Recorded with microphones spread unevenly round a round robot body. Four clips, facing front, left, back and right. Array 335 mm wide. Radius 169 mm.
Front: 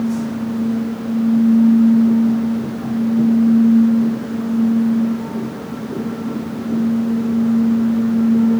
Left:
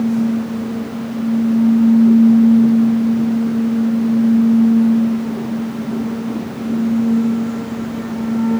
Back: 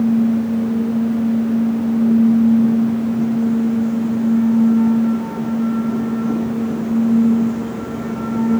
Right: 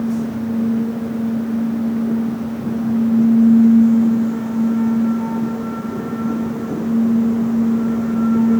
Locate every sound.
Only background noise.